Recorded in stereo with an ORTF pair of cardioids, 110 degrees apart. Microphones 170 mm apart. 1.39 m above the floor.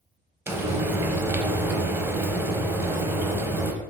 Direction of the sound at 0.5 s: 15° right.